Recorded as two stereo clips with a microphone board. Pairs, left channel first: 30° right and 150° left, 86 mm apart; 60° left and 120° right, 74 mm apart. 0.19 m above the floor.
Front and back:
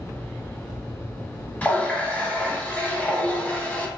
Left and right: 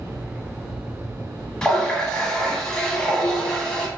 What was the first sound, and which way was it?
A running tap, straight ahead.